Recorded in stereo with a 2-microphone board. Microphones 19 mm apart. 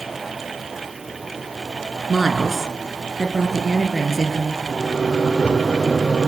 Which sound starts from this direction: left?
A microwave, at 4.7 s.